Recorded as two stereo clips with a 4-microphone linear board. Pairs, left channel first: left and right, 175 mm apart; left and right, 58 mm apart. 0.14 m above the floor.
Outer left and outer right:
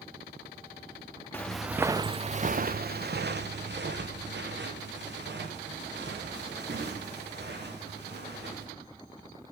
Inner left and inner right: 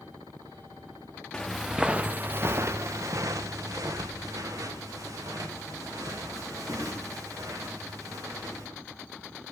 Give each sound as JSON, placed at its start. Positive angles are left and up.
{"t": 1.3, "sound": "footsteps", "side_deg": 10, "distance_m": 0.7}